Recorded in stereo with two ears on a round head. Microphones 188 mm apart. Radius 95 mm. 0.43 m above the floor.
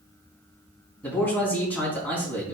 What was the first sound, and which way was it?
A man speaking, 10° left (ahead or behind).